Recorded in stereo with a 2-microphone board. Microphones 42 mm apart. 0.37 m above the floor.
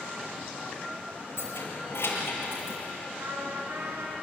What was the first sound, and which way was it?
Keys jangling, 75° left (ahead or behind).